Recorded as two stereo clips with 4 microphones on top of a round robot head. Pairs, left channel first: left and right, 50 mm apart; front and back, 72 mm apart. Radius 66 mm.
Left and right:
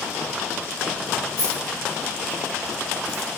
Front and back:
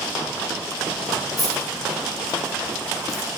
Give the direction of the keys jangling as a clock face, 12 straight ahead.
9 o'clock.